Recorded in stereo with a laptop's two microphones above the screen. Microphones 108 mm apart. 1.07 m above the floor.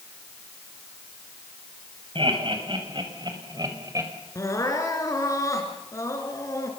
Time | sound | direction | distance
2.1 | laughter | 50° right (ahead or behind) | 5.5 m
4.3 | crying | 30° left (ahead or behind) | 2.5 m